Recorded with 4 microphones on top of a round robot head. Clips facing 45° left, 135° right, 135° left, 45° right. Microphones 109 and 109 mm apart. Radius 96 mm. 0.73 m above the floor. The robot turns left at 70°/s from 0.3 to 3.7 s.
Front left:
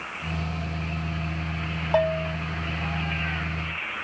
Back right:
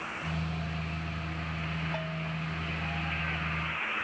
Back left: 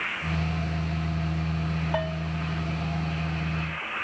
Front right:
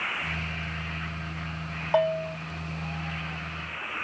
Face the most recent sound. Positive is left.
turn(degrees=-105)